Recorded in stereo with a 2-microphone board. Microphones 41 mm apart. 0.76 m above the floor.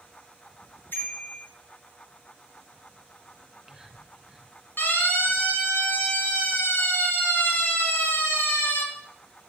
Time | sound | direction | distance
0.9 | a bicycle bell | 65° left (ahead or behind) | 8.5 m
3.4 | whispering | 10° right (ahead or behind) | 4.5 m
4.8 | a siren | 60° left (ahead or behind) | 8.5 m